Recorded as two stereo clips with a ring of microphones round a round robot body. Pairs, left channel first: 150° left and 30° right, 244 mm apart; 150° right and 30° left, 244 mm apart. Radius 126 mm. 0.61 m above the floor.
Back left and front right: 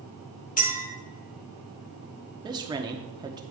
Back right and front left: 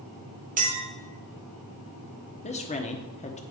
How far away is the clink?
About 1.8 m.